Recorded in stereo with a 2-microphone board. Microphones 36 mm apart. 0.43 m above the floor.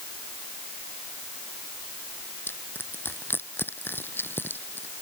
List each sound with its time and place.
2.5 s crushing: 85° left